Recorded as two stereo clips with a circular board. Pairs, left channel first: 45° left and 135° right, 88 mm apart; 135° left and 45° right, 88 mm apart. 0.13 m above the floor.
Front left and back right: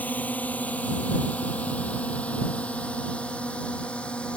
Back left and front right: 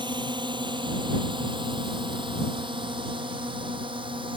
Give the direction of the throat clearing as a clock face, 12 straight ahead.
No throat clearing in this recording.